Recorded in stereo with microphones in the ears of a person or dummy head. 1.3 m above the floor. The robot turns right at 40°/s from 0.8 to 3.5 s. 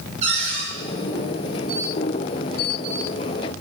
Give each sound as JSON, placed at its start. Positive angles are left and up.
{"t": 0.2, "sound": "a cupboard door", "side_deg": -40, "distance_m": 6.0}